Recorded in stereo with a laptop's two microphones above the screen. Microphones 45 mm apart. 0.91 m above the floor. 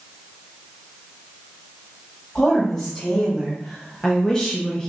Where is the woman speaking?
15° left (ahead or behind), 1.9 m.